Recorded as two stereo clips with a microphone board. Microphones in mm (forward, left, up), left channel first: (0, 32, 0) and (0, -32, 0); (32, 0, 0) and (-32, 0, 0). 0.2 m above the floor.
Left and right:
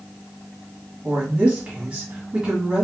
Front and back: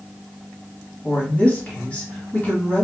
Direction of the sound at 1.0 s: 35° right.